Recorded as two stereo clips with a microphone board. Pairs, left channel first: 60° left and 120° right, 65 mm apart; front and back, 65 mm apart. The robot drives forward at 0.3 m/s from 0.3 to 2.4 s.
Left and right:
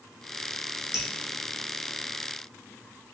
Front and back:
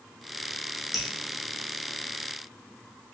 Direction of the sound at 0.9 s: 90° left.